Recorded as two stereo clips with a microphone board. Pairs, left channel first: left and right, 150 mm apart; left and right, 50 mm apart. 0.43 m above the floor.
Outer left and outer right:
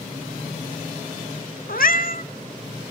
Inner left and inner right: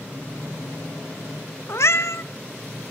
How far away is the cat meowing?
About 0.9 m.